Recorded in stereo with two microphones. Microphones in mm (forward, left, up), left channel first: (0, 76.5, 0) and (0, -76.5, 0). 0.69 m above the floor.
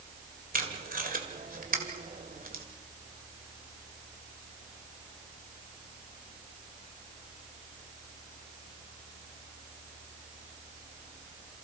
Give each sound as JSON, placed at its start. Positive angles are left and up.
{"t": 0.5, "sound": "tape being pulled", "side_deg": -70, "distance_m": 2.5}